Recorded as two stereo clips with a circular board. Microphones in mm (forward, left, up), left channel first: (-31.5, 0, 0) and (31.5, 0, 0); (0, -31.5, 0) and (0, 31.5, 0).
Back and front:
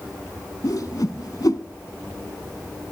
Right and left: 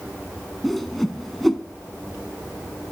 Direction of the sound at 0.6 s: 175° right.